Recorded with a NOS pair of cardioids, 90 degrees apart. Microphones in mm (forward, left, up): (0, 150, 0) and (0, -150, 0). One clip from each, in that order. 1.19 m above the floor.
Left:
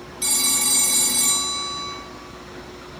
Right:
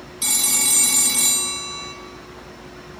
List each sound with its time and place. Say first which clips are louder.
0.2 s a phone ringing: right 1 dB; 15° right, 0.7 m